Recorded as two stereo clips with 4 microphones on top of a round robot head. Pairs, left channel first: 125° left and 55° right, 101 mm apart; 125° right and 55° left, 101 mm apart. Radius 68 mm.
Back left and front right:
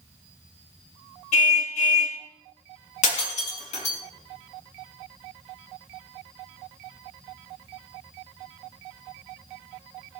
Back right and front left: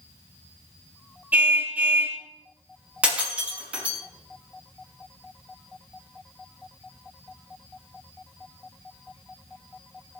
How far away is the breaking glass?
About 5.5 m.